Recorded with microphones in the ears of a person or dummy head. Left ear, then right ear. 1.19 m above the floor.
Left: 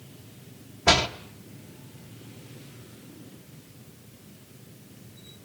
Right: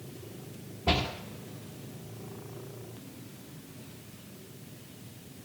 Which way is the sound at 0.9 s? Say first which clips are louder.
Left 8 dB; 60° left (ahead or behind).